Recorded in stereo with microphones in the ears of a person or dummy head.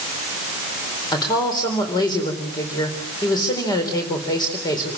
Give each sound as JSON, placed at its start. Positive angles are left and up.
{"t": 1.1, "sound": "a woman speaking", "side_deg": 25, "distance_m": 4.0}